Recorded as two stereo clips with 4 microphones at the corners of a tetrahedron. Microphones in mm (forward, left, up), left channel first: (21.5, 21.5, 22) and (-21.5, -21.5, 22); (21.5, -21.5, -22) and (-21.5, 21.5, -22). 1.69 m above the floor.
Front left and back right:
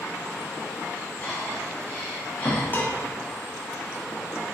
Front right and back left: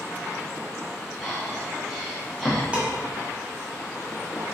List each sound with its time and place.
1.2 s breathing: 45° left, 1.0 m
2.7 s dishes clattering: 75° left, 0.7 m